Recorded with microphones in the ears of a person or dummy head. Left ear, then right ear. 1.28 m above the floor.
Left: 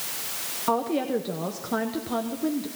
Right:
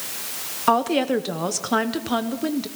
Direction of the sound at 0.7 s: 55° right (ahead or behind).